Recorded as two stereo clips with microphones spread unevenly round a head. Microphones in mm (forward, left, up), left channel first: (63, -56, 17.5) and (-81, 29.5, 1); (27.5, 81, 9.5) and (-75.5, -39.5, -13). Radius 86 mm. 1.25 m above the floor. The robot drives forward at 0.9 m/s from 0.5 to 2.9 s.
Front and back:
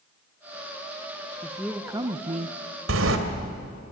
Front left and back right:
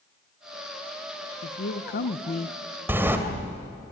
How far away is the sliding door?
About 2.5 m.